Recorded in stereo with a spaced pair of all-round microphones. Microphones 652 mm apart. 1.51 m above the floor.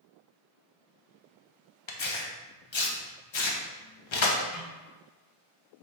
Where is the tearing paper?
50° left (ahead or behind), 0.6 m.